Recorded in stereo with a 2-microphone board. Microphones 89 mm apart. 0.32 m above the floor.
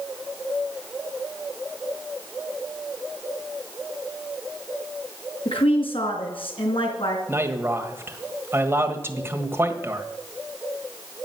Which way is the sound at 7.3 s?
25° right (ahead or behind).